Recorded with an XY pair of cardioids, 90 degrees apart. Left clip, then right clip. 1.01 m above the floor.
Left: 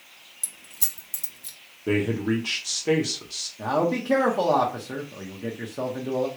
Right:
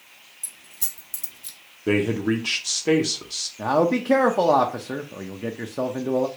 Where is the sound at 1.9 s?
25° right, 0.6 m.